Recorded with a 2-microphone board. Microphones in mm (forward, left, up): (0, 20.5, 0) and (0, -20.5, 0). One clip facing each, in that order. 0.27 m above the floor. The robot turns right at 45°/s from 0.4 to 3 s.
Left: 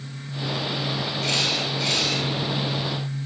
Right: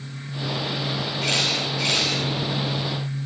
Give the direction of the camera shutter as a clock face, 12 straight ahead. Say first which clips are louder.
Right 1 dB; 4 o'clock.